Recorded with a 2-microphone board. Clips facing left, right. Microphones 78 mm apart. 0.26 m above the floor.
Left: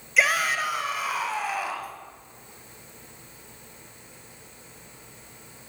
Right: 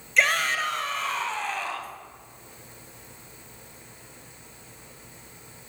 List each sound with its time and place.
0.2 s a shout: 5° left (ahead or behind), 1.4 m; by 2.0 s 10° left (ahead or behind), 2 m